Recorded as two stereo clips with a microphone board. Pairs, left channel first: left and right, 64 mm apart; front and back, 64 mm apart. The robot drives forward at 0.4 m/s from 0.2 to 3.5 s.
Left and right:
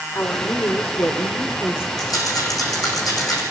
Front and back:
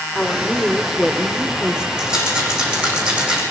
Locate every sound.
0.1 s a woman speaking: 75° left, 1.6 m; by 1.9 s 110° left, 1.6 m
2.0 s a rattle: 100° left, 9 m; by 3.4 s 105° left, 9 m